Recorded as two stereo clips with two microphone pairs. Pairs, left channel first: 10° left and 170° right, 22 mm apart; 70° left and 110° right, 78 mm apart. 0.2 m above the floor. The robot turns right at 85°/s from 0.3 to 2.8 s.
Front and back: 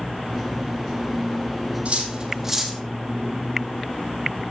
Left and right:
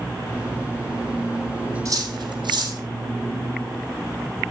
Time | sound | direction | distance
1.9 | cutlery clinking | 150° right | 3.5 m